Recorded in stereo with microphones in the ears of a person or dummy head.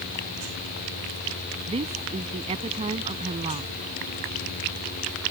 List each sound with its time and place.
1.7 s a woman speaking: 30° right (ahead or behind)